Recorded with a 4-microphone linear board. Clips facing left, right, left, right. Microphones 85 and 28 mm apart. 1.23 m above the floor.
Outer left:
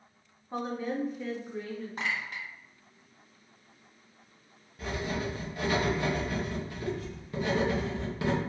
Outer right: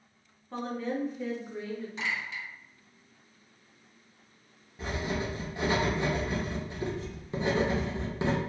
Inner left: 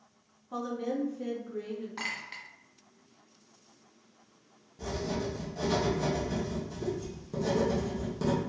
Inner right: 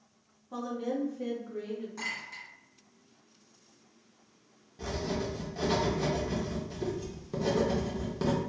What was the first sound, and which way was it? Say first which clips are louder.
A woman speaking: even, even; 15° left (ahead or behind).